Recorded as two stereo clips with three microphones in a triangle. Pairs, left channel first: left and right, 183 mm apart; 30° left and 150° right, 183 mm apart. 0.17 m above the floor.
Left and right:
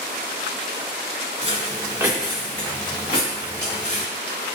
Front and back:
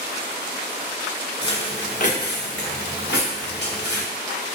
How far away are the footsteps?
About 1.0 m.